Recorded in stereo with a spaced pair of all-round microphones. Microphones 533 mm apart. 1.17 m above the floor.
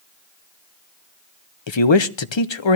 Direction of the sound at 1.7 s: 55° left (ahead or behind).